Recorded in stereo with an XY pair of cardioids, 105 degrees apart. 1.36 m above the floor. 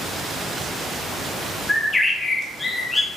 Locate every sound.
1.7 s a bird: 20° left, 1.6 m